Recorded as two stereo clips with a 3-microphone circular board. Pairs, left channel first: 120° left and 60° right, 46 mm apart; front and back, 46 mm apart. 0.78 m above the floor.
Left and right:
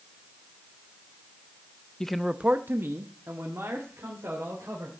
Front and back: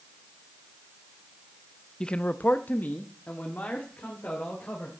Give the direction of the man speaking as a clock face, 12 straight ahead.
10 o'clock.